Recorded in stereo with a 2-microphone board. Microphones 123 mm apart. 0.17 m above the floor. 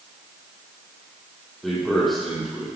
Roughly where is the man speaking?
Centre.